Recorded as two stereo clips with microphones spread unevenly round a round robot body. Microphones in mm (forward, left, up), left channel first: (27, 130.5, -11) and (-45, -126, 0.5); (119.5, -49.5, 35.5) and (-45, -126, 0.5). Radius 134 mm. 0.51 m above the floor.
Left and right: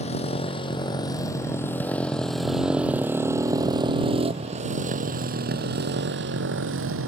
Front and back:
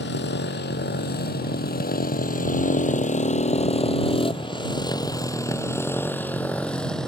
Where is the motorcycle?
5° left; by 7.1 s 60° right.